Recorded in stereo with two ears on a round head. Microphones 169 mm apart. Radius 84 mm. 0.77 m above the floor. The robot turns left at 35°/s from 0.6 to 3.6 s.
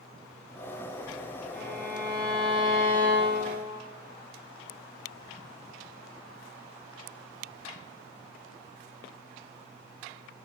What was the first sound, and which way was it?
A violin, 60° left.